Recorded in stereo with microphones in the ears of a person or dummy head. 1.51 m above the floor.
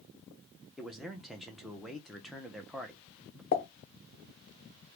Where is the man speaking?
5° left (ahead or behind), 0.8 m.